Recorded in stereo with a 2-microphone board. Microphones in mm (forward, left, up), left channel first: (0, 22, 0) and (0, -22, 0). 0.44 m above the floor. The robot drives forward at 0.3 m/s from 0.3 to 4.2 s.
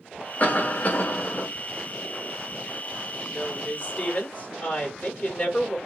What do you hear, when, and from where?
0.4 s a cough: 40° left (ahead or behind), 1.1 m
3.3 s a woman speaking: 35° left (ahead or behind), 1.2 m